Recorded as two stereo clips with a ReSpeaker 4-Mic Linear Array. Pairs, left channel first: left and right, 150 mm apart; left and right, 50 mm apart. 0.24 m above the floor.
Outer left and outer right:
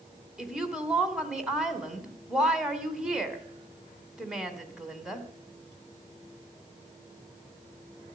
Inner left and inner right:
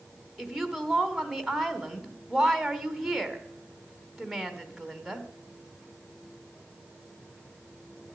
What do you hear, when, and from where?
0.4 s a woman speaking: 5° right (ahead or behind), 2.5 m